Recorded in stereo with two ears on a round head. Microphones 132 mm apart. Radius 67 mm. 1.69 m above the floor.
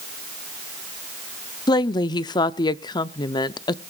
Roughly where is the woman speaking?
Left.